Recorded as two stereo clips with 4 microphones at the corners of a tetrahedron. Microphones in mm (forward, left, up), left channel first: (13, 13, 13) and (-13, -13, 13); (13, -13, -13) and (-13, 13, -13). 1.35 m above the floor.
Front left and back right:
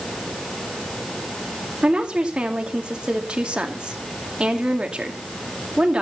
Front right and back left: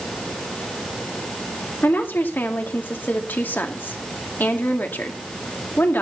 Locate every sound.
1.8 s a woman speaking: 70° right, 2.5 m